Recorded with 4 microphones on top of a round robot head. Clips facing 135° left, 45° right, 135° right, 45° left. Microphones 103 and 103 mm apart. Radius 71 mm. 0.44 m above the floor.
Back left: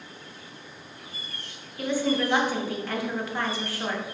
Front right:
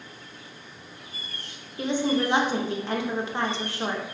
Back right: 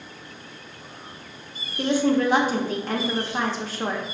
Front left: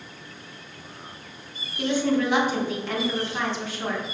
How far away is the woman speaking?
About 1.0 m.